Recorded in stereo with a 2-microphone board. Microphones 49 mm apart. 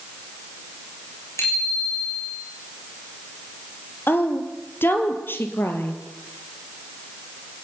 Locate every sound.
1.4 s a bicycle bell: 85° left, 8 m
4.1 s a woman speaking: 55° left (ahead or behind), 3.5 m